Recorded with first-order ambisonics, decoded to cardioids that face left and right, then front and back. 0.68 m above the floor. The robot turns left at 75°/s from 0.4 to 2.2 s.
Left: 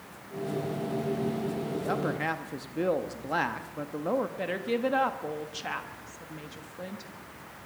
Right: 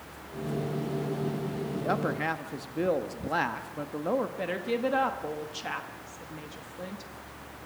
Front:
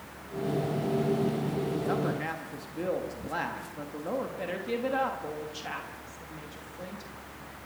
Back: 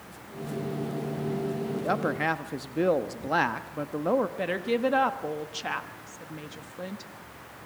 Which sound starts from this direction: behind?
A woman speaking, at 4.4 s.